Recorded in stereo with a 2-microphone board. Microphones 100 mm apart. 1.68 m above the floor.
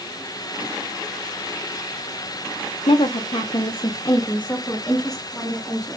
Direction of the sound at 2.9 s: 65° left (ahead or behind).